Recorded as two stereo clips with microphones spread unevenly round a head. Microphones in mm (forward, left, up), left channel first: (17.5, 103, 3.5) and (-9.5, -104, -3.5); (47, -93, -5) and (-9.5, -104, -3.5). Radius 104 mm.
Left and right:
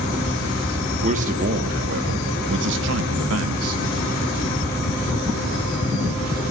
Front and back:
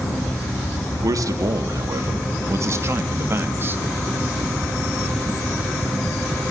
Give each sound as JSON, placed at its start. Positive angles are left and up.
{"t": 1.0, "sound": "a man speaking", "azimuth_deg": -155, "distance_m": 3.0}